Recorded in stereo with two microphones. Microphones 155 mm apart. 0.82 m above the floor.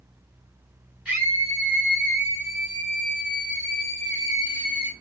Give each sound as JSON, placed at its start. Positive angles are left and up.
{"t": 1.1, "sound": "a scream", "side_deg": -5, "distance_m": 3.5}